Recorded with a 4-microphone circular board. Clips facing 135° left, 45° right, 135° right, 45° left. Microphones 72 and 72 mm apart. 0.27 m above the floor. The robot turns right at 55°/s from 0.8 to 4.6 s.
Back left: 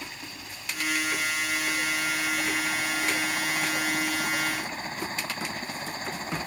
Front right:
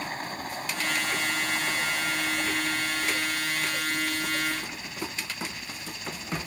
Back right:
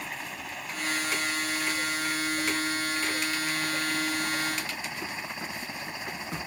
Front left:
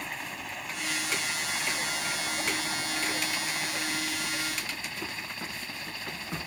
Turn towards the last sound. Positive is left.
turn(degrees=160)